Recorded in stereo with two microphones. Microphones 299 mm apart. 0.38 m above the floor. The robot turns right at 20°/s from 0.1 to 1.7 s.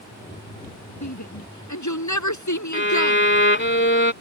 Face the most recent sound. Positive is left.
turn(degrees=40)  # may be behind; listen again after turning